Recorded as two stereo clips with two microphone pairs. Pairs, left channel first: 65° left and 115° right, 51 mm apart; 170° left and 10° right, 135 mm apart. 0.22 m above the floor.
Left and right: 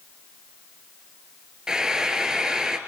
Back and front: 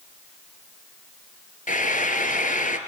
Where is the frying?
170° left, 1.4 m.